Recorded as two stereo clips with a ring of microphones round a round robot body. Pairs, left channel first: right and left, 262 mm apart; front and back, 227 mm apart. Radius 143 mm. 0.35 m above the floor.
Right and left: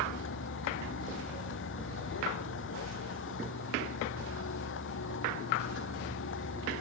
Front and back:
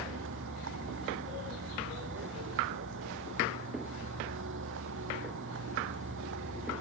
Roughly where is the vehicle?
Behind right.